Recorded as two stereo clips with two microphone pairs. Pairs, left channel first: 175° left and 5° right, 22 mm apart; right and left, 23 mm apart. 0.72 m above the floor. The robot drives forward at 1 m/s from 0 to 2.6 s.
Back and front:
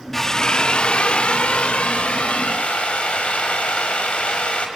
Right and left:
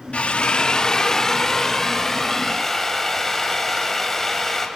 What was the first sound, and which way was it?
A drill, 105° right.